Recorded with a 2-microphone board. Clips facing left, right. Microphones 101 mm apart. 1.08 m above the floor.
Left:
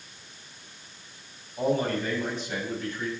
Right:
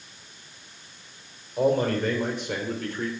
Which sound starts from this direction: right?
A man speaking, at 1.6 s.